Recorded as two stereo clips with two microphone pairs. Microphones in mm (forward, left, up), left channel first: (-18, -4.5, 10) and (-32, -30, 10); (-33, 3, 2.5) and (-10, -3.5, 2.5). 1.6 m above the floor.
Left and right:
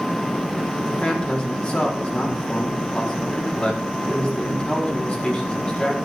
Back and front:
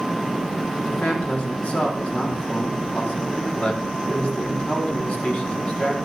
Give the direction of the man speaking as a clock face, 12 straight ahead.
8 o'clock.